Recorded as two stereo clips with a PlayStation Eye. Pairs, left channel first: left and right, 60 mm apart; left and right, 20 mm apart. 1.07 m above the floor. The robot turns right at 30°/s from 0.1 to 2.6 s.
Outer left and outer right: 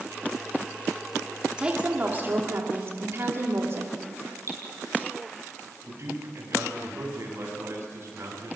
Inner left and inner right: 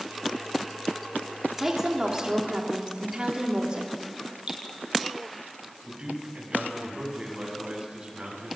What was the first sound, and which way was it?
A woman speaking, 165° right.